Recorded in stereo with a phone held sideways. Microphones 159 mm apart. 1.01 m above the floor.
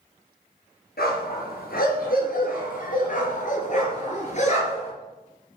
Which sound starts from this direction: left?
A dog barking, at 1.0 s.